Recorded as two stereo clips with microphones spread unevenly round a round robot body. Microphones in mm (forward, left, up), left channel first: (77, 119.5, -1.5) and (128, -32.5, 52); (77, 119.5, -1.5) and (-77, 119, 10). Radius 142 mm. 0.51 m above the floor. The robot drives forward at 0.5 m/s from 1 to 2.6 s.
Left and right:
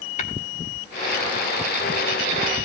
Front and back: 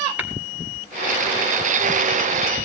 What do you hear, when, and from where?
0.2 s tapping: 100° left, 3 m